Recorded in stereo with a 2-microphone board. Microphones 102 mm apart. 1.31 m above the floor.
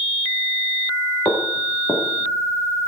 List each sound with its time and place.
1.2 s footsteps: 45° left (ahead or behind), 7 m; by 2.9 s 35° left (ahead or behind), 6.5 m